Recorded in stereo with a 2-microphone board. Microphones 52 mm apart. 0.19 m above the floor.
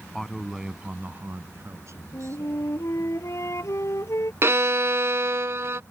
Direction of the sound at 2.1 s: 65° left (ahead or behind).